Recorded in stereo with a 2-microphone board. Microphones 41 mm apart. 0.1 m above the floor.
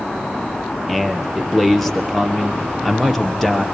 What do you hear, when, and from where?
0.9 s a man speaking: centre (ahead or behind), 2 m